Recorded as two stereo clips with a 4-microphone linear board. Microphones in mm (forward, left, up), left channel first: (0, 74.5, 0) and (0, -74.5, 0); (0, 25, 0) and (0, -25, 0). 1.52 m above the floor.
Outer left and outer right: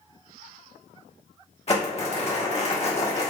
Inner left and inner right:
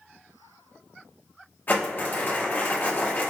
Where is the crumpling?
45° left (ahead or behind), 1.4 m.